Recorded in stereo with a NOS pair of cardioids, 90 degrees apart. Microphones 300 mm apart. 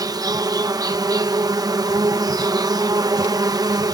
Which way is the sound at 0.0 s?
10° right.